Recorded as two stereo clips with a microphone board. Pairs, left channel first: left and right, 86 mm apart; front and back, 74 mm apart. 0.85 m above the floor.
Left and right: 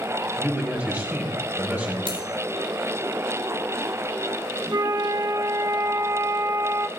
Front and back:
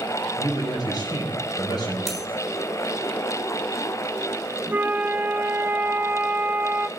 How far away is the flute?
About 0.8 m.